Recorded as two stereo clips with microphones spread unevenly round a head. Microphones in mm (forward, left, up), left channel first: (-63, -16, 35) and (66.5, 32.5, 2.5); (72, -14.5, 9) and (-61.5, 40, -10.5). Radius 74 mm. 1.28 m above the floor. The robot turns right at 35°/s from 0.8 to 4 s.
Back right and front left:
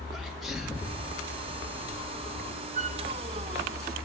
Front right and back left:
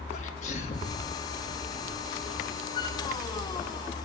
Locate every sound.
0.1 s a sneeze: 70° right, 2 m; by 1.0 s 60° right, 2 m
2.8 s a flute: 40° left, 1.2 m; by 3.0 s 50° left, 1.2 m